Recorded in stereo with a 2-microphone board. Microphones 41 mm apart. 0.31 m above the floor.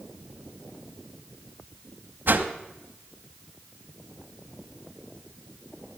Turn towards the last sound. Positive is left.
turn(degrees=-55)  # may be behind; listen again after turning